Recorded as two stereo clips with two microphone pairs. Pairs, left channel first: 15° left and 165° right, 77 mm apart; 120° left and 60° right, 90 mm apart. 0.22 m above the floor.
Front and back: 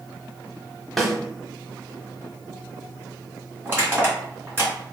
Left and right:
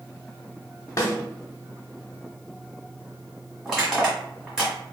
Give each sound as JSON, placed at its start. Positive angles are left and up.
{"t": 1.0, "sound": "a snare drum", "azimuth_deg": 105, "distance_m": 0.6}
{"t": 3.6, "sound": "crushing", "azimuth_deg": -135, "distance_m": 1.6}